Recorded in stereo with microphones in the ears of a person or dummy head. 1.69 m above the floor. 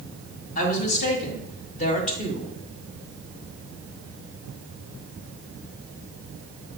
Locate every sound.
0.6 s a woman speaking: 45° left (ahead or behind), 2 m; by 2.5 s 35° left (ahead or behind), 1.1 m